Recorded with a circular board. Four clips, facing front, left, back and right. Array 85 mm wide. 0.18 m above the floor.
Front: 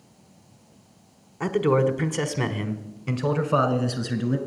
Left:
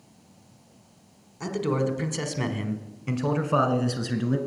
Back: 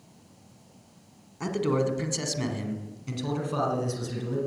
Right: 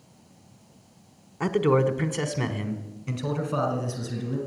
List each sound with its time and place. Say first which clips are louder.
1.4 s a man speaking: right 5 dB, front 5 dB; 60° right, 1.3 m; by 4.4 s 50° left, 2.0 m